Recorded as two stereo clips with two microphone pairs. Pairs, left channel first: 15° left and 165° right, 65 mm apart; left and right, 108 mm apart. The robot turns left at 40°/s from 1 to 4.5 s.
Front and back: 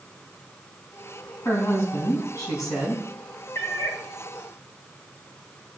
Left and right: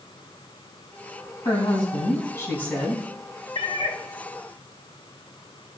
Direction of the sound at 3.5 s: 60° left.